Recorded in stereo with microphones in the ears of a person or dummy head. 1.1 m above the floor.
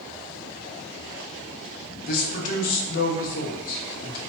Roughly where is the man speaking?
Left.